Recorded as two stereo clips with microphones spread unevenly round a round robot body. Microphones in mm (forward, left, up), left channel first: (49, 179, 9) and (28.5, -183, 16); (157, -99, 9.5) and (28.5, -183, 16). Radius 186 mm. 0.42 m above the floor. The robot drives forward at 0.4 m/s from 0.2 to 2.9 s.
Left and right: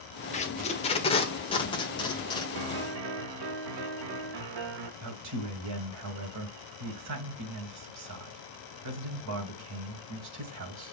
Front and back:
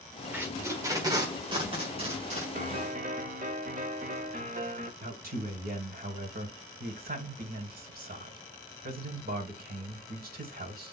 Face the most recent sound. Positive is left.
turn(degrees=-140)